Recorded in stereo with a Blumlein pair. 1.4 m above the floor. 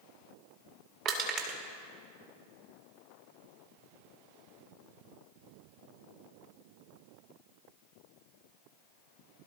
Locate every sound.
1.1 s crushing: 30° right, 2 m